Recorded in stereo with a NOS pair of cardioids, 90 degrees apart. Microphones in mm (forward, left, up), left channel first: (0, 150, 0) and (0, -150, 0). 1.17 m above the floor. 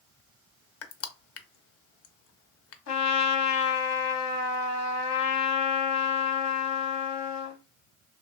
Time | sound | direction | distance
0.8 | crushing | 50° left | 0.6 m
2.9 | a trumpet | 65° left | 0.8 m